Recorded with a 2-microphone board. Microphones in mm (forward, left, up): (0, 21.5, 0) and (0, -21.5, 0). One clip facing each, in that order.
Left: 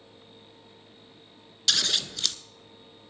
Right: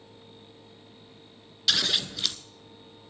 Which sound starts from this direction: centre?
Scissors, at 1.7 s.